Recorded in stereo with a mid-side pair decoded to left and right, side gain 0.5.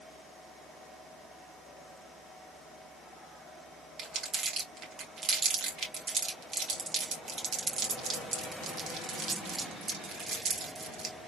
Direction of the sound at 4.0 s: 50° right.